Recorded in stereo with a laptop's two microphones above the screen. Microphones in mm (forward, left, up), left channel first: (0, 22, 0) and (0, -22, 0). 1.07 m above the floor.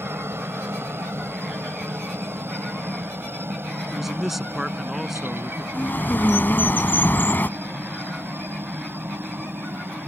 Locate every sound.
0.0 s a helicopter: 65° right (ahead or behind); by 10.1 s 55° right (ahead or behind)
3.9 s a man speaking: 5° right (ahead or behind)
5.7 s a bird: 50° left (ahead or behind)